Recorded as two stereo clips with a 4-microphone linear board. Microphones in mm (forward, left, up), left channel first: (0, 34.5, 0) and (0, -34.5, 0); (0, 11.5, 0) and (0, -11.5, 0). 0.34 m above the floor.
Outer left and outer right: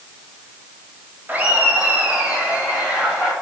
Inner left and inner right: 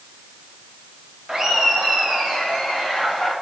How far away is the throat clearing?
No throat clearing in this recording.